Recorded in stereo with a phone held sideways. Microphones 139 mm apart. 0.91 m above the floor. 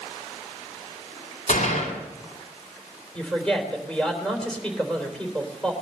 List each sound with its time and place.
1.5 s a gunshot: 80° left, 4 m
3.1 s a woman speaking: 5° left (ahead or behind), 3.5 m